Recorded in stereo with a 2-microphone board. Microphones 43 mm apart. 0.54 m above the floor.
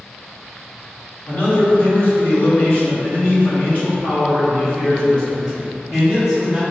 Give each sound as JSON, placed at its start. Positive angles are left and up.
{"t": 1.3, "sound": "a man speaking", "side_deg": 50, "distance_m": 1.7}